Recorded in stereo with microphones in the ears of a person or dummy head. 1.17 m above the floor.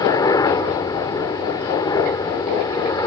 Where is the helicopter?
15° left (ahead or behind).